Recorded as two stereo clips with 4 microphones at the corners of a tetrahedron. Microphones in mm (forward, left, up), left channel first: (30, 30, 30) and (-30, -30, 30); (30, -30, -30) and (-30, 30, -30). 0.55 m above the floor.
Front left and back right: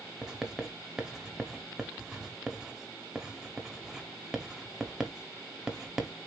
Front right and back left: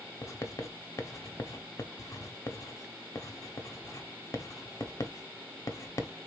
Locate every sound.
0.2 s writing: 55° right, 1.0 m